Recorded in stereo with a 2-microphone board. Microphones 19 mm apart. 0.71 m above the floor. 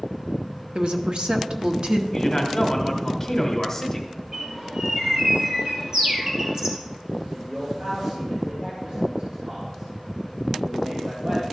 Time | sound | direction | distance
0.8 | a woman speaking | 50° right (ahead or behind) | 0.9 m
2.1 | a man speaking | 15° left (ahead or behind) | 1.9 m
4.3 | a bird | 40° right (ahead or behind) | 2.5 m
7.3 | a man speaking | 65° right (ahead or behind) | 2.5 m